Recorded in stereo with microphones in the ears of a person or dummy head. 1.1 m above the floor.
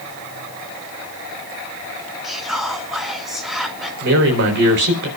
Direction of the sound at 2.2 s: Centre (ahead or behind).